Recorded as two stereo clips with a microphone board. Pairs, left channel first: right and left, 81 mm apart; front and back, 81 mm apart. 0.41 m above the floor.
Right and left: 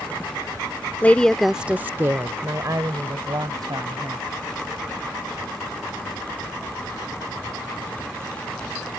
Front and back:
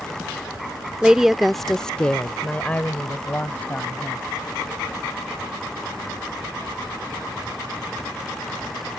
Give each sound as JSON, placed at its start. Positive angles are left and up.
{"t": 1.0, "sound": "a woman speaking", "azimuth_deg": -115}